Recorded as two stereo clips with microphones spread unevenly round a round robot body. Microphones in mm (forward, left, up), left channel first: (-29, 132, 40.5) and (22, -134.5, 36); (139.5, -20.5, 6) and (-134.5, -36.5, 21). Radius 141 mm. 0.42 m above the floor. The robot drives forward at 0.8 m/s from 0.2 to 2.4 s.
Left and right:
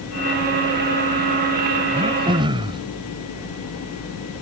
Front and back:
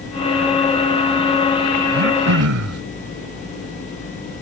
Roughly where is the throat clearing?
Behind right.